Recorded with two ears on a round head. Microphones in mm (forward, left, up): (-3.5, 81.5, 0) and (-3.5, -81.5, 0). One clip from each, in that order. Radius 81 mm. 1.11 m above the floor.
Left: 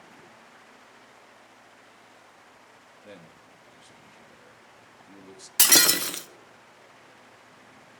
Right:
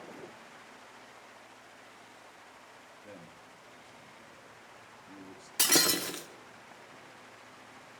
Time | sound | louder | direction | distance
3.0 | a man speaking | left 4 dB | 75° left (ahead or behind) | 1.8 m
5.6 | breaking glass | left 7 dB | 30° left (ahead or behind) | 1.0 m